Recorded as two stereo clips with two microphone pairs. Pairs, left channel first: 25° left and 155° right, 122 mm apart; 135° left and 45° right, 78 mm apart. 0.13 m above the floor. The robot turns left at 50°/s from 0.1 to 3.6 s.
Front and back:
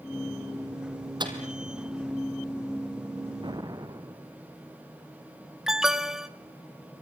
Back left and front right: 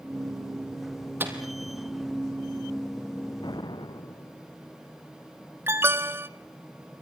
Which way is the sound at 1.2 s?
105° right.